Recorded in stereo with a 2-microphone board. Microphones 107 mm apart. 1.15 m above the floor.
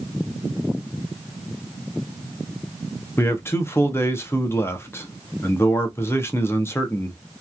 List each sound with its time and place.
3.2 s a man speaking: 20° left (ahead or behind), 0.6 m